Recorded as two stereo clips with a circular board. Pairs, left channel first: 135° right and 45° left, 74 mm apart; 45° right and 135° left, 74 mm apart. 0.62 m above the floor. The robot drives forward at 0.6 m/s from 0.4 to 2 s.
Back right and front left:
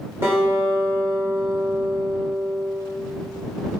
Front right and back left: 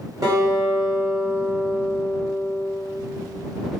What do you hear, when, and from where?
0.2 s a guitar: 100° left, 1.6 m; by 2.8 s 130° left, 2 m